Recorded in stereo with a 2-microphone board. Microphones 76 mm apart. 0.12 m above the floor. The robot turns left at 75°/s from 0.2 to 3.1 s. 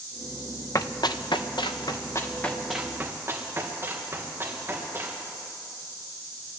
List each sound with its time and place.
0.8 s running footsteps: 45° left (ahead or behind), 0.9 m; by 5.2 s 30° right (ahead or behind), 5.5 m